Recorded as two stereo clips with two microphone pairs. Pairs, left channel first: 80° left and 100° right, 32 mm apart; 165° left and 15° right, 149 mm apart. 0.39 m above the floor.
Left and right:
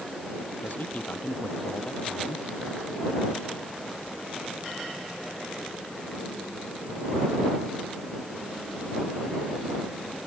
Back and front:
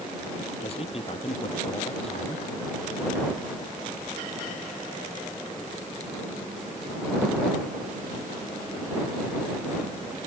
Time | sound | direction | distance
0.6 | a man speaking | 120° left | ?